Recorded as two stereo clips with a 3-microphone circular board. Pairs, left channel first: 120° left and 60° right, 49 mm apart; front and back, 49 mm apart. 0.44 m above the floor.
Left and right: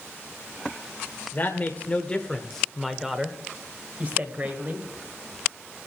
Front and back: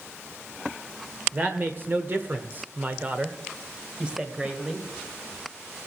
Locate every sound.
1.3 s a woman speaking: 150° left, 1.4 m; by 4.9 s 105° right, 2 m